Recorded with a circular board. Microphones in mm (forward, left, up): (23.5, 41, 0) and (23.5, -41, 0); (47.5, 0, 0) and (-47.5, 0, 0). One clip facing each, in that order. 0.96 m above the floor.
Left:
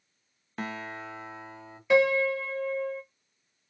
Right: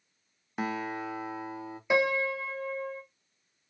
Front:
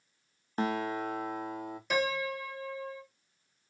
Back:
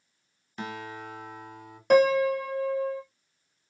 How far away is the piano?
About 0.6 m.